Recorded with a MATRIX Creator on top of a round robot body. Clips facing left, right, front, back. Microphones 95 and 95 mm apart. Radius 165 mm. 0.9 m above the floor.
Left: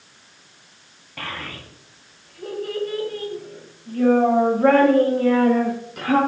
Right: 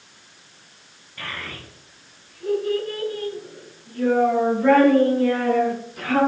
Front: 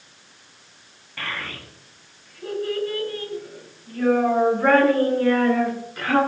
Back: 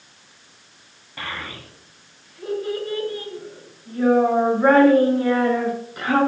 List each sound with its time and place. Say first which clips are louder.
1.2 s a child speaking: left 2 dB, even; 105° left, 5 m; by 6.2 s 110° left, 9.5 m